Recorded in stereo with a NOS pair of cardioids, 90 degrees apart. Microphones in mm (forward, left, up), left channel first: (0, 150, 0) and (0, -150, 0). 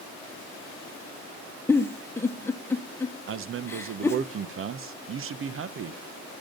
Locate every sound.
1.7 s a giggle: 10° left, 1.2 m
3.3 s a man speaking: 45° right, 0.9 m